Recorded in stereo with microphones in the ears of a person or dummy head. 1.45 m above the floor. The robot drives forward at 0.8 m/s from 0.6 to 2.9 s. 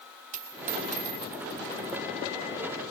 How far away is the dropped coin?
About 1.8 m.